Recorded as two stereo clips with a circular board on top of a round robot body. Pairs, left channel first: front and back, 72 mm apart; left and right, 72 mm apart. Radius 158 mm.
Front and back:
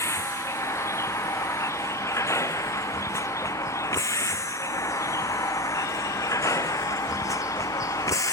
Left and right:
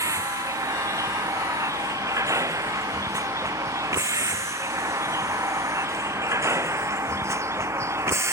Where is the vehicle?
50° right; by 8.3 s 40° right.